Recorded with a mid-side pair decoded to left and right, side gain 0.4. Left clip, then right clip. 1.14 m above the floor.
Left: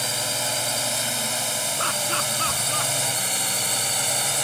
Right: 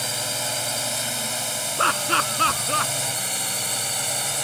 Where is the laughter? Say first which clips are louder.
Right 7 dB; 50° right.